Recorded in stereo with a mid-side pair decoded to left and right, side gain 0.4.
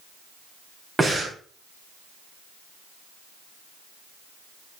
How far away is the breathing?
About 3.5 m.